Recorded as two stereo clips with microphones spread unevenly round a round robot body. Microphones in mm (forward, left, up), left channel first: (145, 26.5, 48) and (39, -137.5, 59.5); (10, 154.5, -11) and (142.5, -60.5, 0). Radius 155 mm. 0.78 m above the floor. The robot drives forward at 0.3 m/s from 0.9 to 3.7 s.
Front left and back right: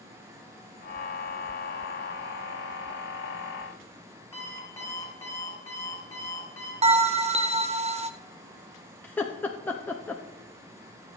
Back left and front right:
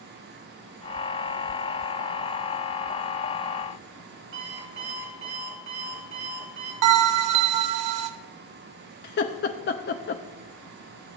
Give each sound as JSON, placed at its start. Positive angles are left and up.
{"t": 4.3, "sound": "an alarm clock", "azimuth_deg": -20, "distance_m": 4.5}
{"t": 6.8, "sound": "a bell", "azimuth_deg": -70, "distance_m": 0.7}
{"t": 9.0, "sound": "laughter", "azimuth_deg": 130, "distance_m": 0.5}